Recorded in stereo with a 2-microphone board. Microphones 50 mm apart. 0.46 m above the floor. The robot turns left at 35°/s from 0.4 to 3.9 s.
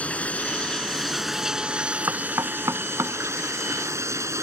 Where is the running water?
30° left; by 4.4 s 95° right.